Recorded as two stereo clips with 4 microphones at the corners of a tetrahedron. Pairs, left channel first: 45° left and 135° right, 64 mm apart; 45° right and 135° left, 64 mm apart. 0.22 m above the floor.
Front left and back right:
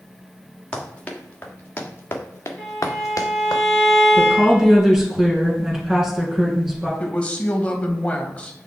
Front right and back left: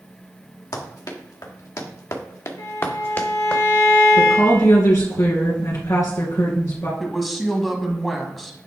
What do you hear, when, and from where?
0.7 s running footsteps: 30° right, 2.5 m; by 3.6 s 25° left, 1.3 m
2.6 s a violin: 45° right, 1.9 m
4.2 s a woman speaking: 50° right, 2.5 m
7.0 s a woman speaking: 45° left, 1.1 m